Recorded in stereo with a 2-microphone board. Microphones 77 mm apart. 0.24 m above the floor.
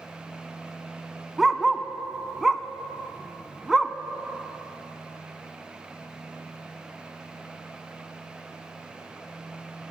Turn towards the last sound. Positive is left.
turn(degrees=-5)  # may be behind; listen again after turning